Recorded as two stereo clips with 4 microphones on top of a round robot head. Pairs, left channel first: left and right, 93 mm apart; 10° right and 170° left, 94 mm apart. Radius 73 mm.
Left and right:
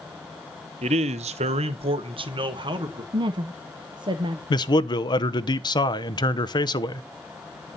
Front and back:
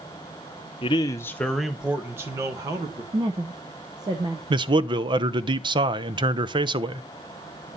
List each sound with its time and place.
0.8 s a man speaking: 55° right, 1.0 m; by 3.0 s 130° right, 2 m
3.1 s a woman speaking: 130° right, 0.8 m
4.5 s a man speaking: 135° left, 0.8 m